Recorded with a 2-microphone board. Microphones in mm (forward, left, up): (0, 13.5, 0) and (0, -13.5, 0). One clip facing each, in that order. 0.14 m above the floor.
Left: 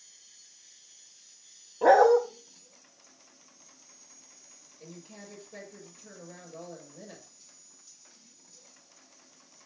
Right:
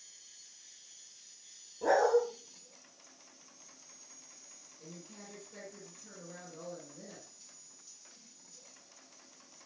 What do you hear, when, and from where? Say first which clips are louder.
1.8 s a dog barking: left 8 dB; 60° left (ahead or behind), 1.1 m
4.8 s a woman speaking: left 4 dB; 25° left (ahead or behind), 4.5 m